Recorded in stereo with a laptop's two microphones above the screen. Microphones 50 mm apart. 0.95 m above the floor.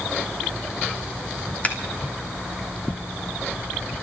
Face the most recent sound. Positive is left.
turn(degrees=30)  # may be behind; listen again after turning